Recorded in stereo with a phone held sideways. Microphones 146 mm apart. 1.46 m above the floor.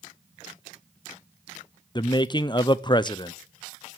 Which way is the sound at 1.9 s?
30° left (ahead or behind).